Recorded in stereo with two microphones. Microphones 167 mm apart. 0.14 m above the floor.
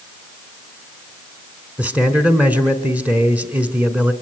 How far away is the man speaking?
About 1.3 m.